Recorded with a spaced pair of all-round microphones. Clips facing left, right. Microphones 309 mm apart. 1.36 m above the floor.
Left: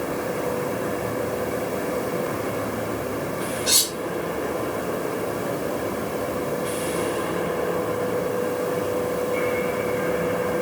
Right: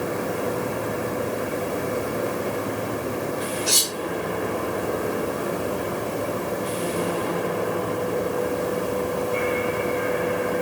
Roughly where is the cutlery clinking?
Left.